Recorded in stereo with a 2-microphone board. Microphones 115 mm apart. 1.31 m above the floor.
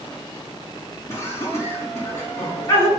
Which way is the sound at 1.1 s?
25° left (ahead or behind).